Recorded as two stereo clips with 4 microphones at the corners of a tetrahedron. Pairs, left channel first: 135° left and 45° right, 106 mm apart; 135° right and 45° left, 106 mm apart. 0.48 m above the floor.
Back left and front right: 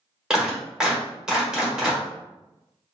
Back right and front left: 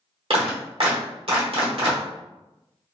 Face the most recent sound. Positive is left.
turn(degrees=35)